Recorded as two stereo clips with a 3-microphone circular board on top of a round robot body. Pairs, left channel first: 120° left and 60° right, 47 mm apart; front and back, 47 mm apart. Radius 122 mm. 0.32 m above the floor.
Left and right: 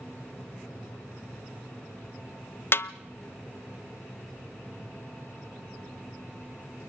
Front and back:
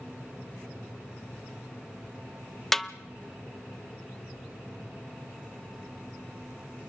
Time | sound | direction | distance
2.7 | a snare drum | 85° left | 0.8 m